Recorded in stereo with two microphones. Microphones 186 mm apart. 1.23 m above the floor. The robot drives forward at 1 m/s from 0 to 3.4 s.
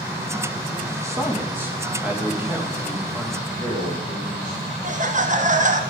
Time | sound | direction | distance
1.0 | a man speaking | 15° right (ahead or behind) | 1.5 m
3.4 | a man speaking | 50° right (ahead or behind) | 3.5 m
4.8 | laughter | 40° right (ahead or behind) | 0.8 m